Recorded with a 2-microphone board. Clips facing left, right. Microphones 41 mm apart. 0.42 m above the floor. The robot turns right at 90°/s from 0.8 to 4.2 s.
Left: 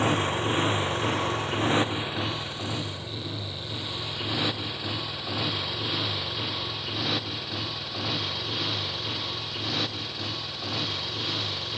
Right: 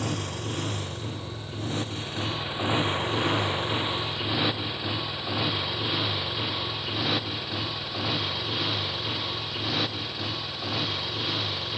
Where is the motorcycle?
40° left (ahead or behind); by 11.8 s 10° right (ahead or behind).